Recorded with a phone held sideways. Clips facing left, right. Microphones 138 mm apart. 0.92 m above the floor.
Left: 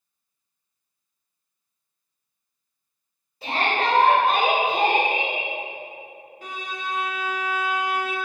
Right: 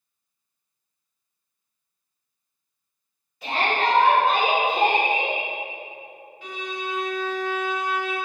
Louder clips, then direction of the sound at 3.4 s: Even; 30° left (ahead or behind).